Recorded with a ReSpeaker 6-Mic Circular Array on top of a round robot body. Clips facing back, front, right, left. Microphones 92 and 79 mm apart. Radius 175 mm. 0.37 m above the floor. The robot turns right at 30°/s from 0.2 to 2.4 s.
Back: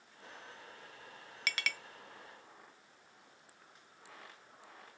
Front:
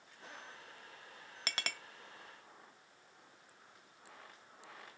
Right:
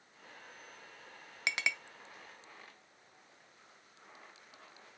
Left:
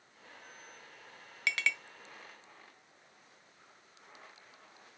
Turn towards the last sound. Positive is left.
turn(degrees=-5)